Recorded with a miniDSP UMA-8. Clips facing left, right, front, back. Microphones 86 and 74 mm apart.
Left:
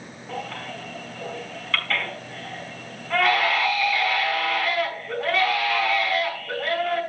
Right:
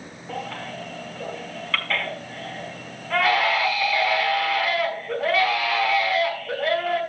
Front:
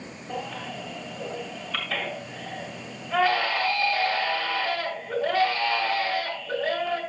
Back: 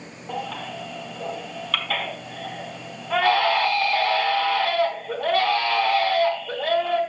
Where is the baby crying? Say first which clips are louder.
Right 1 dB, back 3 dB; straight behind, 5 m.